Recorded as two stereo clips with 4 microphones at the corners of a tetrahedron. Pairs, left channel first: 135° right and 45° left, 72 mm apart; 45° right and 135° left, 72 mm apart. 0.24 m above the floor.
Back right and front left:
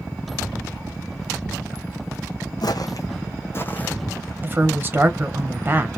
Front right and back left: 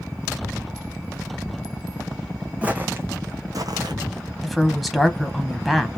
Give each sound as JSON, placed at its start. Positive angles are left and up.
{"t": 2.6, "sound": "footsteps", "azimuth_deg": -155, "distance_m": 0.9}
{"t": 4.4, "sound": "a woman speaking", "azimuth_deg": 40, "distance_m": 1.0}